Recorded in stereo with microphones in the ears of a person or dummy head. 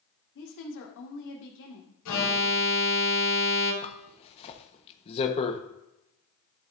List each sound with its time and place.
0.3 s a woman speaking: 65° left (ahead or behind), 2 m
2.0 s an alarm: 85° left, 3 m
3.8 s a zipper: 35° left (ahead or behind), 1.2 m